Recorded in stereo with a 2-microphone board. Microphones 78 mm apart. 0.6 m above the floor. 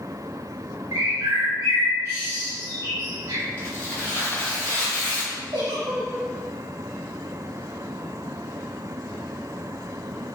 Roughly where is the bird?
Right.